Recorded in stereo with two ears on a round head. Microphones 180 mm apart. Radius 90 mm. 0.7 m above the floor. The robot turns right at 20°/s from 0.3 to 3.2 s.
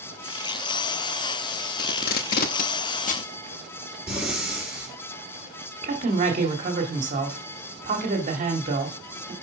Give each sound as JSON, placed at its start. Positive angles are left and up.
{"t": 1.8, "sound": "tape being pulled", "side_deg": 50, "distance_m": 0.7}
{"t": 4.1, "sound": "breathing", "side_deg": -5, "distance_m": 3.5}
{"t": 5.8, "sound": "a woman speaking", "side_deg": -40, "distance_m": 1.9}